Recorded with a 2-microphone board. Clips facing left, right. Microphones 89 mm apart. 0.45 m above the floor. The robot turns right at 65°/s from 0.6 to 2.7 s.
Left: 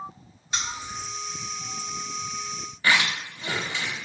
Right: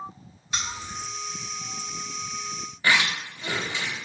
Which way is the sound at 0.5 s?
30° left (ahead or behind).